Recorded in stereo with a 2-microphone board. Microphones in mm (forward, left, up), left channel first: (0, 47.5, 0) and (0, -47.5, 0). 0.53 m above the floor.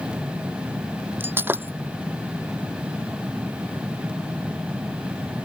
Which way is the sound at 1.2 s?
20° right (ahead or behind).